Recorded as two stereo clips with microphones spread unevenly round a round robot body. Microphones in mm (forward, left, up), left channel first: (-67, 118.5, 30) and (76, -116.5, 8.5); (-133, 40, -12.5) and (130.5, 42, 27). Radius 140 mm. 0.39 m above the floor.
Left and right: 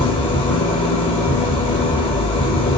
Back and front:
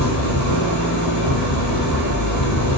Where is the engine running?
170° right, 6 m.